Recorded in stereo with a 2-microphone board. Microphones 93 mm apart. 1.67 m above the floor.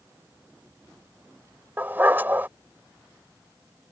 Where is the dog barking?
20° right (ahead or behind).